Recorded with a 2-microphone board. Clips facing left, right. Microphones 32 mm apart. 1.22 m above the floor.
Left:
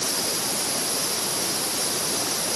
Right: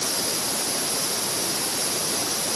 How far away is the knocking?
No knocking in this recording.